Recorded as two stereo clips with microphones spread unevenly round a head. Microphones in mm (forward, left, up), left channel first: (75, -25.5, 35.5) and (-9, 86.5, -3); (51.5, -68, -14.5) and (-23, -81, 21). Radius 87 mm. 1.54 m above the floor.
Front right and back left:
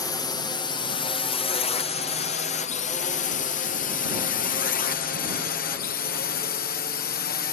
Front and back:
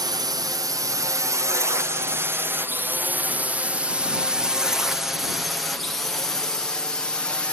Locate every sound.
0.0 s a drone: 125° right; by 7.5 s 45° right